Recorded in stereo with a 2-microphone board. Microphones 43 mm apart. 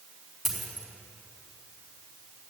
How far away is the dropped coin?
About 4 m.